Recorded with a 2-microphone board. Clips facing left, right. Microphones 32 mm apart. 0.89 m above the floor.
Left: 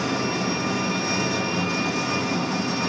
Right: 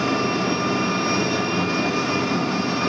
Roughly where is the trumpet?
No trumpet in this recording.